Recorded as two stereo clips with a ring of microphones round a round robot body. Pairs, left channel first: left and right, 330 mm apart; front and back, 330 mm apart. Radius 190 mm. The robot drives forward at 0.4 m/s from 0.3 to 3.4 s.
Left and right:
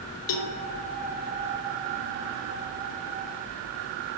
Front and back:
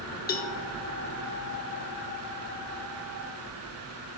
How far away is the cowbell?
About 0.9 m.